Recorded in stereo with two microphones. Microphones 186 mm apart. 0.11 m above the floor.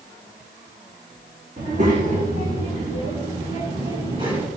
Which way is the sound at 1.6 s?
40° right (ahead or behind).